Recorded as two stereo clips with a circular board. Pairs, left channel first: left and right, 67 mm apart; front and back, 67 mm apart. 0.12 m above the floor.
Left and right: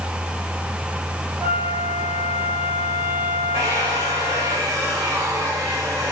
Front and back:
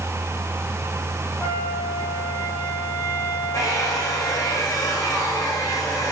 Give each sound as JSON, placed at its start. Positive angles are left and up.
{"t": 1.4, "sound": "a flute", "azimuth_deg": -50, "distance_m": 6.5}
{"t": 3.5, "sound": "a hair dryer", "azimuth_deg": -45, "distance_m": 9.5}